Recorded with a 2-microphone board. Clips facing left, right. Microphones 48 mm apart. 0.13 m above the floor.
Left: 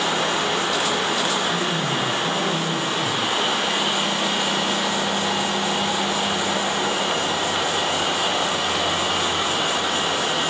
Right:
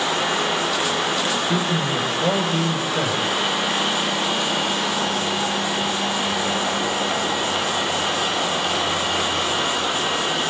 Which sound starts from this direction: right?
A man speaking, at 1.5 s.